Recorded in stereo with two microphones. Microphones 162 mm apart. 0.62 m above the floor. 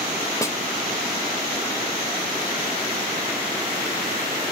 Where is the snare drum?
20° left (ahead or behind), 1.9 m.